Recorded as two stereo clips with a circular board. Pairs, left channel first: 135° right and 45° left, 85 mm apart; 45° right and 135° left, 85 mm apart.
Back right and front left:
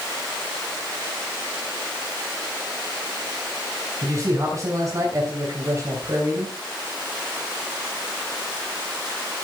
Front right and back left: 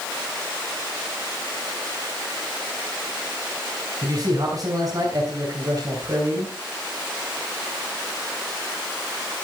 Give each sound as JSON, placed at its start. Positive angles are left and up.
{"t": 4.0, "sound": "a man speaking", "azimuth_deg": 95, "distance_m": 3.5}